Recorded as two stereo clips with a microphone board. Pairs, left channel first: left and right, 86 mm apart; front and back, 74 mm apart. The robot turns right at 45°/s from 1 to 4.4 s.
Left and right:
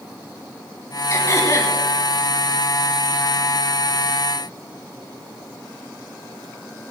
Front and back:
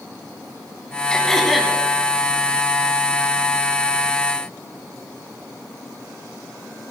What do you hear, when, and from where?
1.1 s throat clearing: 70° left, 1.9 m; by 1.7 s 100° left, 1.9 m